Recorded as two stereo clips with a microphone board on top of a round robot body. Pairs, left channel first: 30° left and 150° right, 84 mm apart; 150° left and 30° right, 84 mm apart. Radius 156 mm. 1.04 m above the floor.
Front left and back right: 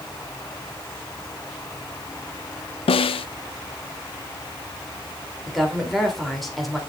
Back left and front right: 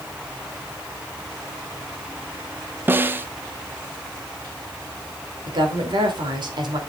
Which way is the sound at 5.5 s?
60° right.